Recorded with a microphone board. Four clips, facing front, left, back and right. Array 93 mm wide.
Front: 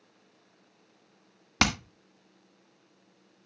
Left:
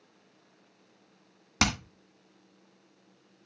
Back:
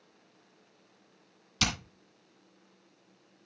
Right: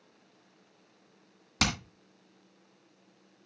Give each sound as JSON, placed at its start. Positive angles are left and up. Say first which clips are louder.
{"t": 1.6, "sound": "hammering", "louder": "left 3 dB, front 7 dB", "azimuth_deg": 15, "distance_m": 1.5}